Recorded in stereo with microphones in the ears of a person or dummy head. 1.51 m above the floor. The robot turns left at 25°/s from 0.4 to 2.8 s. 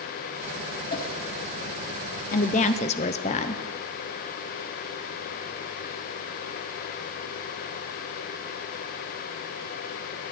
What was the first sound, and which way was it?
A whoosh, 45° left (ahead or behind).